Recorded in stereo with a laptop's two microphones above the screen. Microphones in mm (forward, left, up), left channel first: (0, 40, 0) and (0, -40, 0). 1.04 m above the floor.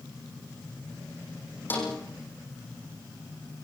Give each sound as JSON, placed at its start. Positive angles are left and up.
{"t": 1.7, "sound": "a snare drum", "side_deg": 25, "distance_m": 8.5}